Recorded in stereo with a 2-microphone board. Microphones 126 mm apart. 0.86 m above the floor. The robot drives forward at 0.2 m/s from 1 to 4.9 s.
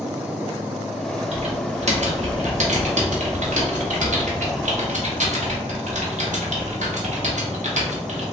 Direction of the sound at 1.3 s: 60° right (ahead or behind).